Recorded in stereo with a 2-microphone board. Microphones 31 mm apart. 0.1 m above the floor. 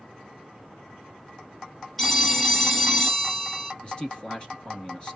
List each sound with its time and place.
2.0 s a phone ringing: 5° left (ahead or behind), 1.5 m
3.8 s a man speaking: 30° left (ahead or behind), 1.3 m